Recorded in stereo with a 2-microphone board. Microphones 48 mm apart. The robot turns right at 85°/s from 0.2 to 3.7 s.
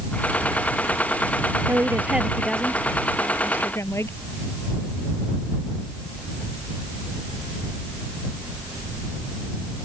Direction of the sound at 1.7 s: 65° right.